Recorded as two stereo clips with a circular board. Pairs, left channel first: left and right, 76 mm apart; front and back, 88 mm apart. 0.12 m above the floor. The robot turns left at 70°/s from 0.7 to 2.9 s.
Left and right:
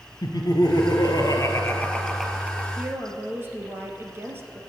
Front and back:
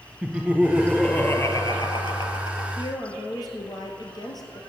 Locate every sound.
0.2 s laughter: 105° left, 2 m; by 2.7 s 30° right, 2 m
2.8 s a woman speaking: 25° right, 2.5 m; by 4.6 s 35° right, 2.5 m